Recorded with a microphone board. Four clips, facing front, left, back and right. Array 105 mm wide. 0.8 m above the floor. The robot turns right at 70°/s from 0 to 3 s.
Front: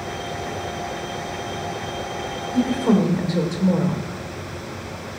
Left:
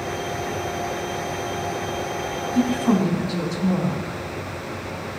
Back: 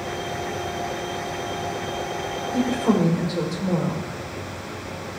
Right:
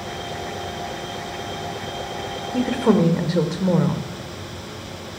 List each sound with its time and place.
2.5 s a woman speaking: 115° right, 2.5 m; by 4.1 s 80° right, 2.5 m